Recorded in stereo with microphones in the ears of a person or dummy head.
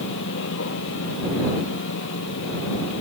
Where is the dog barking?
No dog barking in this recording.